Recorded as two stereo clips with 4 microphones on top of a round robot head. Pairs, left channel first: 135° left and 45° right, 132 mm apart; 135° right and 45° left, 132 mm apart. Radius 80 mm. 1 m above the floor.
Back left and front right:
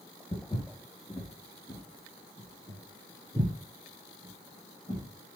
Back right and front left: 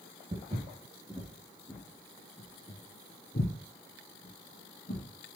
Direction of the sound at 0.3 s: 85° left.